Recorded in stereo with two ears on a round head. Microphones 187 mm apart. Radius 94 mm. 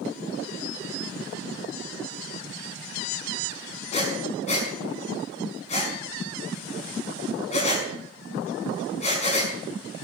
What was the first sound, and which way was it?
Breathing, 35° left (ahead or behind).